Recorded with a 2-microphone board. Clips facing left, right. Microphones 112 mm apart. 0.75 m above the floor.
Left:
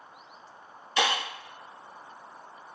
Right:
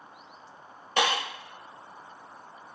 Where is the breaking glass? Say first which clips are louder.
Right 1 dB; 50° right (ahead or behind), 1.9 m.